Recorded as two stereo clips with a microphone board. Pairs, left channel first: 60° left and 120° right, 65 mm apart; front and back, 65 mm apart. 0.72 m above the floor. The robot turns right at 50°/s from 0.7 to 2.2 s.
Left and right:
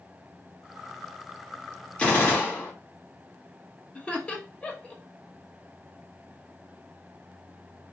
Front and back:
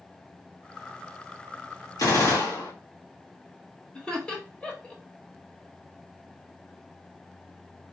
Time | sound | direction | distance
2.0 | a gunshot | 10° right | 2.5 m
4.0 | laughter | 40° left | 1.1 m